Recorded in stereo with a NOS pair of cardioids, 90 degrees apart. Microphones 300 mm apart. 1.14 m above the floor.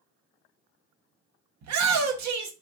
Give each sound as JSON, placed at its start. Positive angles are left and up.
{"t": 1.6, "sound": "a shout", "azimuth_deg": -60, "distance_m": 0.9}